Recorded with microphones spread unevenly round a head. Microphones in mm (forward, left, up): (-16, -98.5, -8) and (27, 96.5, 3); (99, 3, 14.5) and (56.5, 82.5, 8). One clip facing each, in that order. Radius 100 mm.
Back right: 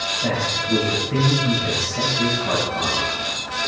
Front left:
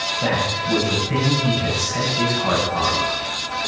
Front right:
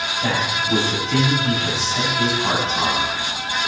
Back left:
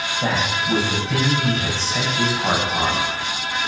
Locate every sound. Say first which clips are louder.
0.2 s a man speaking: front left 2 dB, back left 1 dB; 75° left, 8.5 m